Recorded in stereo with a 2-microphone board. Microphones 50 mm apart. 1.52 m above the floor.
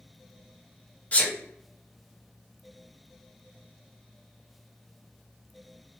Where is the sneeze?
30° left (ahead or behind), 1.0 m.